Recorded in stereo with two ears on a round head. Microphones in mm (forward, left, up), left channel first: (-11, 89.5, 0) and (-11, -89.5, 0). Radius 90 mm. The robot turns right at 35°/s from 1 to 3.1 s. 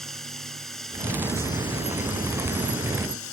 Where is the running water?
Straight ahead; by 3.3 s 75° left.